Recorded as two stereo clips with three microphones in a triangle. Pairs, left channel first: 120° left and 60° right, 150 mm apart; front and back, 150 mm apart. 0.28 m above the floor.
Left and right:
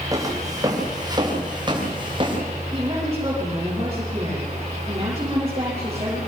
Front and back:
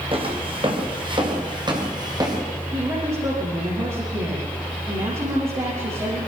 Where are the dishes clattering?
No dishes clattering in this recording.